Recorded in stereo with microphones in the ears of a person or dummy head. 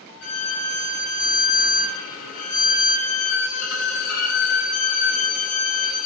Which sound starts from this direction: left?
A violin, at 0.2 s.